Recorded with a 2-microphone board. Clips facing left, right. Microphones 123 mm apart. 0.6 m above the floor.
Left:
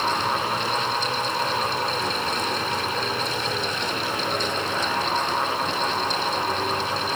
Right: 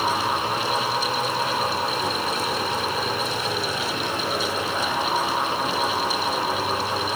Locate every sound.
Only background noise.